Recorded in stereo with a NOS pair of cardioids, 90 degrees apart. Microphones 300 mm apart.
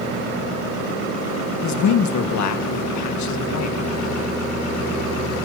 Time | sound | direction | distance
1.6 | a man speaking | 65° left | 1.7 m